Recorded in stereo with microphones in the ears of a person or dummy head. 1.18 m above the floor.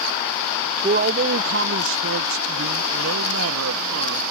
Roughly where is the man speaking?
Right.